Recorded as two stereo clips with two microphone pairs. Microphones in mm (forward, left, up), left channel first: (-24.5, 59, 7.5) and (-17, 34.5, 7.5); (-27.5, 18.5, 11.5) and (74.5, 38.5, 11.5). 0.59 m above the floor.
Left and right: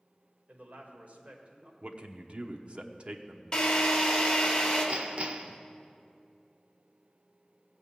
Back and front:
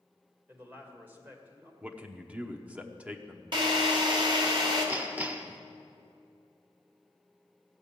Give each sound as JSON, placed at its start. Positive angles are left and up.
{"t": 0.5, "sound": "a man speaking", "azimuth_deg": -60, "distance_m": 1.9}
{"t": 1.8, "sound": "a man speaking", "azimuth_deg": -60, "distance_m": 0.9}
{"t": 3.5, "sound": "a drill", "azimuth_deg": 45, "distance_m": 1.9}
{"t": 4.9, "sound": "hammering", "azimuth_deg": -55, "distance_m": 0.8}